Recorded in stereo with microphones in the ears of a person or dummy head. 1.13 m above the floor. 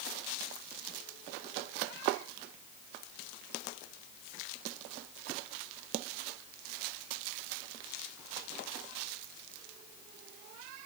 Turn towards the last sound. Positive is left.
No sound to turn to.